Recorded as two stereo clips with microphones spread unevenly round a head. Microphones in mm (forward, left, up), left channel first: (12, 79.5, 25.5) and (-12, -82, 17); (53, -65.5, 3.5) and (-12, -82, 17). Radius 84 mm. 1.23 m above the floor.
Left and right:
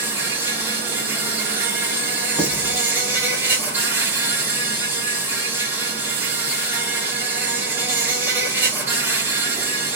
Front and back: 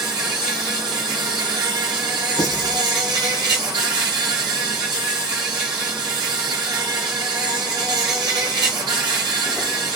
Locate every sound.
0.0 s an insect: 175° right, 1.5 m
2.4 s writing: 25° left, 3 m